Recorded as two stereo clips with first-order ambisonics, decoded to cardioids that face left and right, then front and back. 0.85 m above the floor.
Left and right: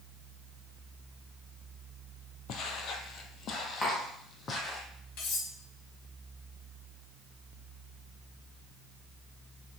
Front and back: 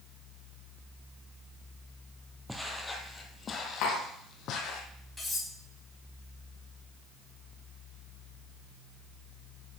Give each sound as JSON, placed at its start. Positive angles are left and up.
{"t": 2.5, "sound": "footsteps", "azimuth_deg": 95, "distance_m": 1.1}
{"t": 3.8, "sound": "tapping", "azimuth_deg": 20, "distance_m": 2.5}
{"t": 5.2, "sound": "cutlery clinking", "azimuth_deg": 80, "distance_m": 4.0}